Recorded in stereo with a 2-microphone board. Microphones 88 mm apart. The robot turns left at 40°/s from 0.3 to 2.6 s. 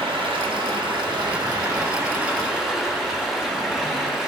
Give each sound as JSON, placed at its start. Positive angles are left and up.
{"t": 0.0, "sound": "running water", "azimuth_deg": -85, "distance_m": 1.3}